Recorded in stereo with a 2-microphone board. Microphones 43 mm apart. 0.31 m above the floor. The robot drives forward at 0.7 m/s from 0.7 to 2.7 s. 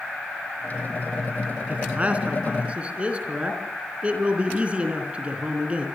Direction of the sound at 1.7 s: 35° right (ahead or behind).